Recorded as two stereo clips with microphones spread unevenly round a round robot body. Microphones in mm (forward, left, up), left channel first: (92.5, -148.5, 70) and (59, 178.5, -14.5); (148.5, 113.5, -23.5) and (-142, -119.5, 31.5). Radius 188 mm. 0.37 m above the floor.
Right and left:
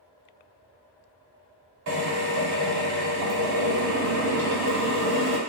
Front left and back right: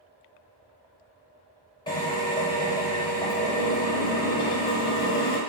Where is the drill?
105° left, 0.8 m.